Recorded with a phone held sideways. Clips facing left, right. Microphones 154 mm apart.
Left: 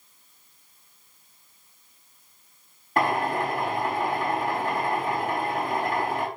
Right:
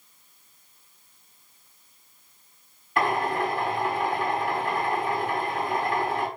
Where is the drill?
40° left (ahead or behind), 3.5 m.